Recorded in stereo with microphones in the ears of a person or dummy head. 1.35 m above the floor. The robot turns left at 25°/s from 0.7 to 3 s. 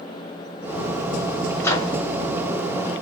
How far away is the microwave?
About 1.3 m.